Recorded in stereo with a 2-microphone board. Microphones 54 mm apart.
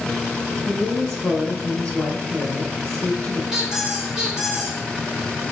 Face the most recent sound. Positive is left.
turn(degrees=-10)  # may be behind; listen again after turning